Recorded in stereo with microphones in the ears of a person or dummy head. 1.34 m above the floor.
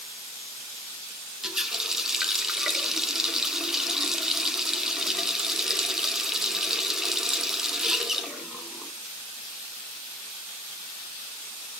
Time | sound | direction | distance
1.4 | a running tap | 5° left (ahead or behind) | 1.0 m